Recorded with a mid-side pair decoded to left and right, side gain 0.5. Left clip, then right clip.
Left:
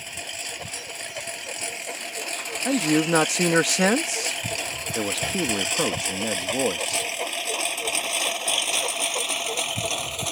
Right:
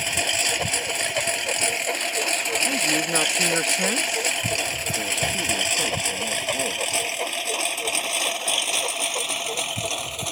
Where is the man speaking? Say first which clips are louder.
Even; 45° left.